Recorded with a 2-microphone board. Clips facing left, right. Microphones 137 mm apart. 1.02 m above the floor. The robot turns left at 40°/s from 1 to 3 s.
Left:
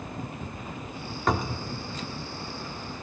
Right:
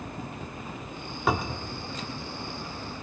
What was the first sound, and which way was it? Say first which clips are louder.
A cupboard door: even; 5° right (ahead or behind).